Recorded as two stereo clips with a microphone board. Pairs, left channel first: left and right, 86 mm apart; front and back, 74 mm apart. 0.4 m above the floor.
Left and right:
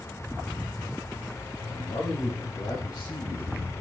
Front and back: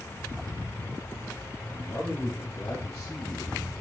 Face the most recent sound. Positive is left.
turn(degrees=35)